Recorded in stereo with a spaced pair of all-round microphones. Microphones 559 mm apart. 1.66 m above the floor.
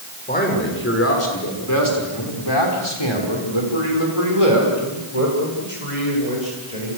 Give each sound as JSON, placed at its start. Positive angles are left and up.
{"t": 0.3, "sound": "a man speaking", "side_deg": 15, "distance_m": 7.0}